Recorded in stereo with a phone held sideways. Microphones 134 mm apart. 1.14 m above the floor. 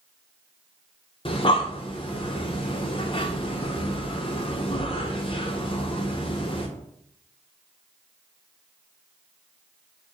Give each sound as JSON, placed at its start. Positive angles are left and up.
{"t": 1.2, "sound": "breathing", "side_deg": 40, "distance_m": 0.7}